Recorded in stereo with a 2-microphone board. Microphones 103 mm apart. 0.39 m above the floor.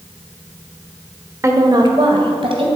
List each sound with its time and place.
1.4 s a woman speaking: 25° right (ahead or behind), 1.1 m; by 2.7 s 65° right (ahead or behind), 2.5 m